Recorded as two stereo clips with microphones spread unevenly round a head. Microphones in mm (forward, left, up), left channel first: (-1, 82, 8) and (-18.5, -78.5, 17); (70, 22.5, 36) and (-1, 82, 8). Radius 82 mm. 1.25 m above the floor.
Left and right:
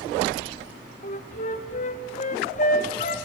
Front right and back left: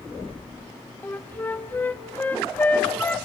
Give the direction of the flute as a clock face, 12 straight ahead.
11 o'clock.